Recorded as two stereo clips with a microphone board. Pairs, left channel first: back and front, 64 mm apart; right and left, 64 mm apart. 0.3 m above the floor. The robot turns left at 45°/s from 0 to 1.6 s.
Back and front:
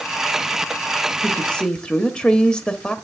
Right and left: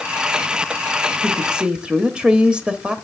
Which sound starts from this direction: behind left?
A woman speaking, at 1.2 s.